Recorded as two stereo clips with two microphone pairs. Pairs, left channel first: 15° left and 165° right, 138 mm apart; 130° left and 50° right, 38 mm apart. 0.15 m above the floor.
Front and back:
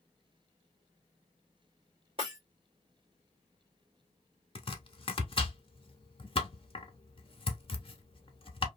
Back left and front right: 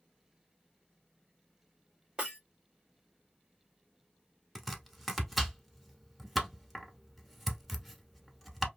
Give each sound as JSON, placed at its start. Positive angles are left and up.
{"t": 2.2, "sound": "breaking glass", "azimuth_deg": -115, "distance_m": 1.4}
{"t": 4.5, "sound": "chopping", "azimuth_deg": 40, "distance_m": 0.7}